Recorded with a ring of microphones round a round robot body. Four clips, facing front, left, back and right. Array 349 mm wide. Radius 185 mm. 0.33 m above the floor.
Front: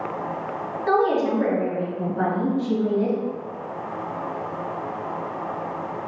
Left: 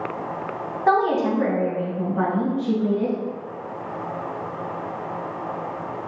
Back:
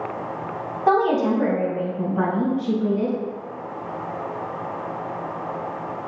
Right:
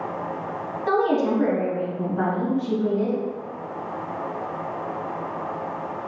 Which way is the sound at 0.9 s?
135° left.